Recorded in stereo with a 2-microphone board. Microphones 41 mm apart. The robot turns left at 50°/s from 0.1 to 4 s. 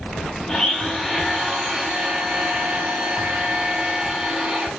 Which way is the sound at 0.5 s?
35° left.